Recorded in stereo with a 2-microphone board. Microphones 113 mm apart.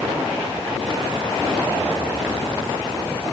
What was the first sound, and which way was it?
Only background noise.